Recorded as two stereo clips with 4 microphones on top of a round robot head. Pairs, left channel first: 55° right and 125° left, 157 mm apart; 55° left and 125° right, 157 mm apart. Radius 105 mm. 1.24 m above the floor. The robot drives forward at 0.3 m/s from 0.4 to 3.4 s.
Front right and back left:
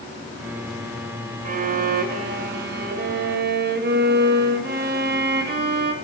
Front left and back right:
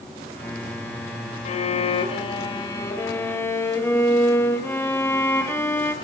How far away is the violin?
About 0.9 m.